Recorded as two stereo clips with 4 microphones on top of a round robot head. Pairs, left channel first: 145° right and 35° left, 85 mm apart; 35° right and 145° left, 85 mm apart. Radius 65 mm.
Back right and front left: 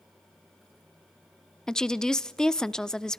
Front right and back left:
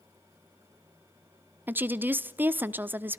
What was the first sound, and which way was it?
A woman speaking, 145° left.